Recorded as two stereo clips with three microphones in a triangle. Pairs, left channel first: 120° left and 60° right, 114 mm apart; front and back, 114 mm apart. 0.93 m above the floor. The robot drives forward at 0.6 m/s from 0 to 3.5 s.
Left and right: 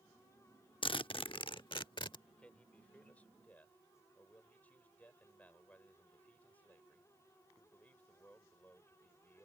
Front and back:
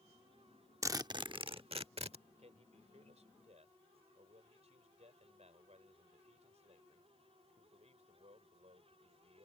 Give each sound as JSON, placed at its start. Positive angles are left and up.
{"t": 0.8, "sound": "a zipper", "azimuth_deg": 125}
{"t": 2.3, "sound": "a man speaking", "azimuth_deg": -160}